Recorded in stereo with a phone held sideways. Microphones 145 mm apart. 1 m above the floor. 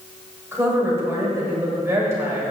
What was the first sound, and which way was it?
A woman speaking, 20° right (ahead or behind).